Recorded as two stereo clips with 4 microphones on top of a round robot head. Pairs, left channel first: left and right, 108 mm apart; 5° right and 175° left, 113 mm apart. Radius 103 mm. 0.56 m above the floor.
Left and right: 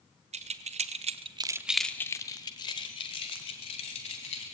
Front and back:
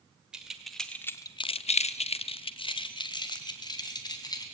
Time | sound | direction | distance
0.3 | keys jangling | 100° right | 1.4 m